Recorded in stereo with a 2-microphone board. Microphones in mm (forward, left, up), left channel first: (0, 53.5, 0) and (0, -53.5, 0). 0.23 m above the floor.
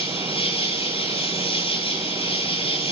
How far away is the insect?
About 4 m.